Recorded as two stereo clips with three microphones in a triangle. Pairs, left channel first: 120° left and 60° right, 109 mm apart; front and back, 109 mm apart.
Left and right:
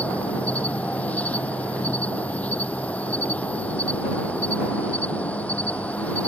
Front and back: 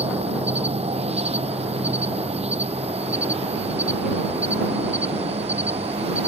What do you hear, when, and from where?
0.0 s an insect: 165° right